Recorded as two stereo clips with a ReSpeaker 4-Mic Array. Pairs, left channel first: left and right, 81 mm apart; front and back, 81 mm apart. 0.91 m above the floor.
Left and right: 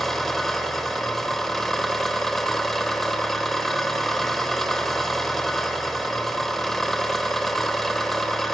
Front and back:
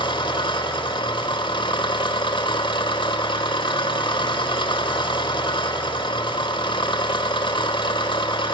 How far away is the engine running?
About 2 m.